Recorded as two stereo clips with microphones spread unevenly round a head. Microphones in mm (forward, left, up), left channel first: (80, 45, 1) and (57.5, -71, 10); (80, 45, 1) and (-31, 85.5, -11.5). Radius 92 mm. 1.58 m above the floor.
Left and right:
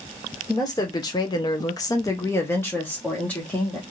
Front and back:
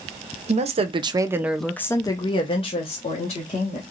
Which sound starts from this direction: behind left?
A woman speaking, at 0.5 s.